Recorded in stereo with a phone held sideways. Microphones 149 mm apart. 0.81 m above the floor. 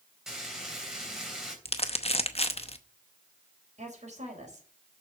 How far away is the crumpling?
About 0.8 m.